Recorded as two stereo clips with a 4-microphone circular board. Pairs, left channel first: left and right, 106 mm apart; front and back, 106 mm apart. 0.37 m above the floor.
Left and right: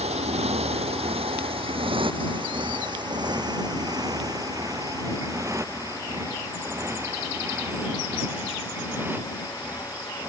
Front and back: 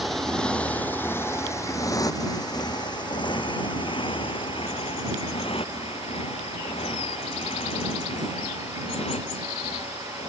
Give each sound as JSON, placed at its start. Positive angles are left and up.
{"t": 0.0, "sound": "a motorcycle", "azimuth_deg": -90}